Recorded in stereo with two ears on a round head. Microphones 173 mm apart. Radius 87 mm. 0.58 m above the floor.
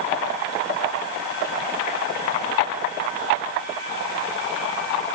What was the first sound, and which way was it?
Only background noise.